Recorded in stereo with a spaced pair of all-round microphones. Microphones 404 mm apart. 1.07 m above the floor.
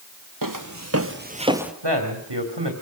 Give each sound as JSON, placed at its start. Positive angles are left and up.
{"t": 0.4, "sound": "footsteps", "side_deg": -55, "distance_m": 1.8}
{"t": 1.8, "sound": "a man speaking", "side_deg": -85, "distance_m": 2.5}